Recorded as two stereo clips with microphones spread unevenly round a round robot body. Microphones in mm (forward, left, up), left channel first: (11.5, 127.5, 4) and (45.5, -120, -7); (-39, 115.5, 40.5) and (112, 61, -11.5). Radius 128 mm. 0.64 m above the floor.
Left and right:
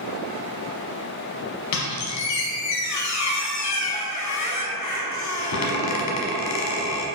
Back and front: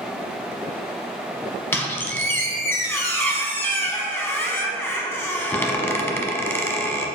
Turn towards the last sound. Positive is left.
turn(degrees=90)